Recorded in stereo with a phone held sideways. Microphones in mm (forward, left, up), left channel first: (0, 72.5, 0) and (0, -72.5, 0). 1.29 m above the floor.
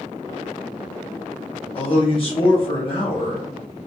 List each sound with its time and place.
1.8 s a man speaking: 40° left (ahead or behind), 0.7 m